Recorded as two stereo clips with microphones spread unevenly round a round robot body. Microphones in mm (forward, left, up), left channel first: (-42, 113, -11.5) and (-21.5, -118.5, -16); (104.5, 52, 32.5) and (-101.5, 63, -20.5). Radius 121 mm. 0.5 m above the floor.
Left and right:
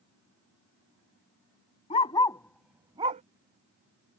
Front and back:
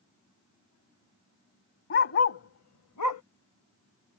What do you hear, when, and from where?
1.9 s a dog barking: 25° left; by 3.2 s 25° right